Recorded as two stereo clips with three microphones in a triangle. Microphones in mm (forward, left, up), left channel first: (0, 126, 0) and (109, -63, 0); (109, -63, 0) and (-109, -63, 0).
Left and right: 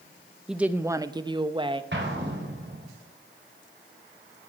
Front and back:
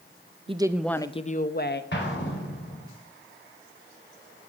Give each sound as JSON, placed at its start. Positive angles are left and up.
{"t": 0.5, "sound": "a woman speaking", "azimuth_deg": -145, "distance_m": 0.7}
{"t": 1.9, "sound": "an explosion", "azimuth_deg": -30, "distance_m": 4.0}